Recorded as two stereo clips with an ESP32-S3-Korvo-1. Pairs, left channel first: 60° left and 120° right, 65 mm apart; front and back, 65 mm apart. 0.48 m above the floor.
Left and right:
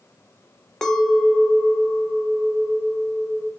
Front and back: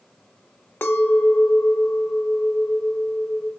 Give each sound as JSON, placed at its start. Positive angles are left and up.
{"t": 0.8, "sound": "a clink", "azimuth_deg": -15, "distance_m": 0.8}